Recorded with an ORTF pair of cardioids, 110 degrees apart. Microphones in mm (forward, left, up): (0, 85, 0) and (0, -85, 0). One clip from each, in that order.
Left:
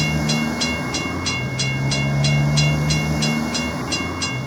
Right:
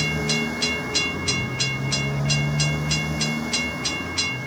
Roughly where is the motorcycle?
Ahead left.